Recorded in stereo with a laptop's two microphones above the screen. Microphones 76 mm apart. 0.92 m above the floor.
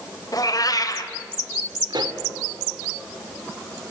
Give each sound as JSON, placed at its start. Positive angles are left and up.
{"t": 0.3, "sound": "a cat meowing", "side_deg": 55, "distance_m": 1.3}
{"t": 1.9, "sound": "a pop", "side_deg": -70, "distance_m": 1.7}